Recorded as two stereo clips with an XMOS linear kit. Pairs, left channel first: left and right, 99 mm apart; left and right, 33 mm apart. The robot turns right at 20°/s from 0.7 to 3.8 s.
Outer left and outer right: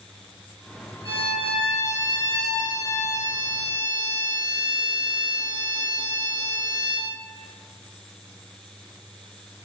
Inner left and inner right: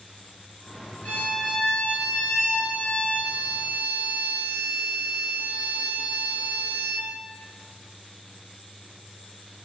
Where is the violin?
100° left, 1.2 m; by 7.1 s 155° left, 1.2 m.